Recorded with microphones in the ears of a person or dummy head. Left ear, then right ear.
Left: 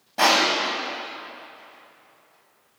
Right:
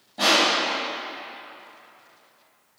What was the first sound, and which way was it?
Crushing, 35° left (ahead or behind).